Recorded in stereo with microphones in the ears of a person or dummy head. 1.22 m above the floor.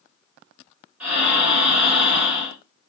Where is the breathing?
5° right (ahead or behind), 2.0 m.